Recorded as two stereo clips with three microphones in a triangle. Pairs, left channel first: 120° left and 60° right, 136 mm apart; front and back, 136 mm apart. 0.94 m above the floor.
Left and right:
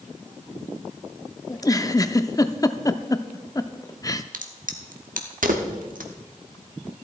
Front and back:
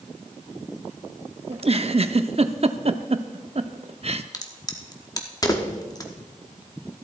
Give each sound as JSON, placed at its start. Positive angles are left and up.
{"t": 1.5, "sound": "a giggle", "azimuth_deg": 175, "distance_m": 0.5}
{"t": 4.3, "sound": "a crack", "azimuth_deg": -60, "distance_m": 1.1}